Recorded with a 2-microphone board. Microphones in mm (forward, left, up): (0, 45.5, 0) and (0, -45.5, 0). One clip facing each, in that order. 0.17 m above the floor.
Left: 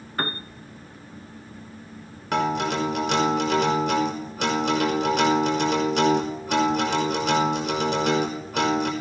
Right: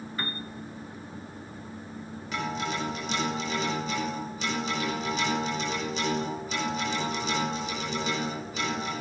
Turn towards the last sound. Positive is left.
turn(degrees=70)  # may be behind; listen again after turning